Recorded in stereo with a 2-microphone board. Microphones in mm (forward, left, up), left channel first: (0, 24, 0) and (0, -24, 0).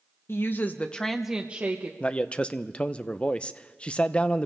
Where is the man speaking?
25° left (ahead or behind), 0.6 m.